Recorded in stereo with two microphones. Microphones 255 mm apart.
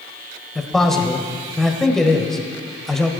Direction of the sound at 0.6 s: Centre (ahead or behind).